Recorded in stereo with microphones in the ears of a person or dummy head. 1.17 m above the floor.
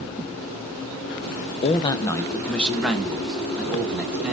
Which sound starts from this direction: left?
A man speaking, at 1.6 s.